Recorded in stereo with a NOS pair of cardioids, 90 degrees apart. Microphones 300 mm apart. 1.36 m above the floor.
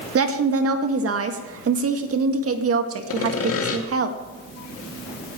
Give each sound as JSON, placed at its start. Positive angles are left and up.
{"t": 0.1, "sound": "a woman speaking", "azimuth_deg": -50, "distance_m": 1.8}
{"t": 3.1, "sound": "sawing", "azimuth_deg": 50, "distance_m": 2.0}